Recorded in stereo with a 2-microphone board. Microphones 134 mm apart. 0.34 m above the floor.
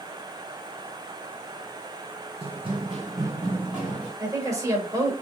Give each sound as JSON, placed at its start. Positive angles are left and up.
{"t": 2.4, "sound": "running footsteps", "side_deg": -50, "distance_m": 0.8}
{"t": 4.2, "sound": "a woman speaking", "side_deg": -25, "distance_m": 1.1}